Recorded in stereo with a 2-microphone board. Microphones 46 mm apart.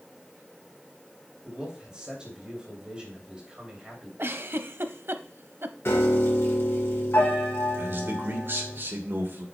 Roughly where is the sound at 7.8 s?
Right.